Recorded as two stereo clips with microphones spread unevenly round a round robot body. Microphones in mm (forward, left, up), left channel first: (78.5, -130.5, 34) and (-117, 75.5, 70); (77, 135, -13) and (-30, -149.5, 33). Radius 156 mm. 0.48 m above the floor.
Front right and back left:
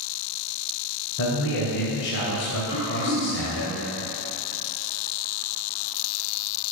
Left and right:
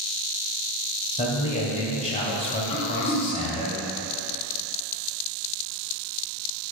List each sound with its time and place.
1.2 s a man speaking: straight ahead, 2 m
2.7 s throat clearing: 65° left, 2.5 m